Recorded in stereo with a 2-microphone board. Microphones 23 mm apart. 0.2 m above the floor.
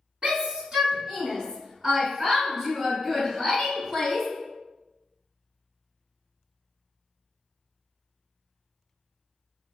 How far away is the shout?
About 1.3 m.